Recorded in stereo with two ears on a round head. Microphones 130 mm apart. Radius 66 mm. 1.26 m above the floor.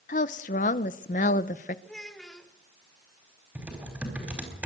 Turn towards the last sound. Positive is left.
turn(degrees=-10)  # may be behind; listen again after turning